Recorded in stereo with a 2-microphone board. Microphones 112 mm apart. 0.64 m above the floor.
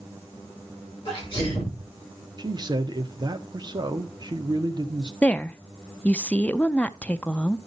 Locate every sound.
1.1 s a sneeze: 50° left (ahead or behind), 9 m
2.4 s a man speaking: 40° right (ahead or behind), 1.0 m
5.2 s a woman speaking: 10° left (ahead or behind), 0.6 m